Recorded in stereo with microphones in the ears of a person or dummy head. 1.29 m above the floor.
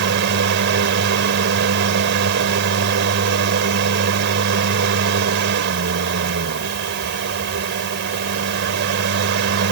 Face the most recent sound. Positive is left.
turn(degrees=-65)  # may be behind; listen again after turning